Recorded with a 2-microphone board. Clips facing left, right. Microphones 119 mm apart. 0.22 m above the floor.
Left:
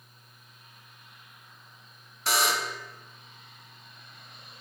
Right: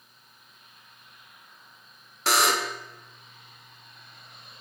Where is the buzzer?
70° right (ahead or behind), 0.6 m.